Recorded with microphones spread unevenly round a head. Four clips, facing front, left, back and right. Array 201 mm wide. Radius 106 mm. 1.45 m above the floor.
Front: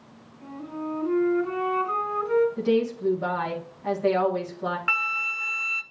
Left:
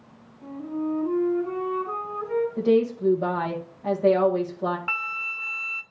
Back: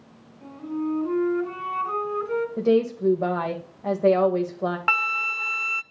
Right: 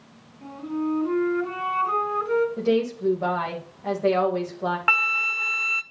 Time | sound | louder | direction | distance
0.4 | a flute | right 1 dB, back 5 dB | 105° right | 3 m
2.6 | a woman speaking | left 2 dB, back 3 dB | 175° left | 1.9 m
4.9 | a flute | right 7 dB, back 3 dB | 135° right | 0.5 m